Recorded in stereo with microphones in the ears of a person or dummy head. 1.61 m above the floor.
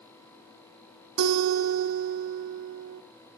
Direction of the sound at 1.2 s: 75° right (ahead or behind).